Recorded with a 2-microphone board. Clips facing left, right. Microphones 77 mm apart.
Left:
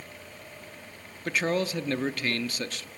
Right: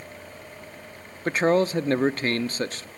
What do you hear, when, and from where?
1.2 s a man speaking: 35° right (ahead or behind), 0.6 m